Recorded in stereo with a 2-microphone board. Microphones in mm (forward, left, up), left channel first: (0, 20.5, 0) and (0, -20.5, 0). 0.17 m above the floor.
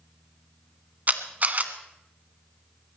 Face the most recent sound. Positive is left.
turn(degrees=-40)  # may be behind; listen again after turning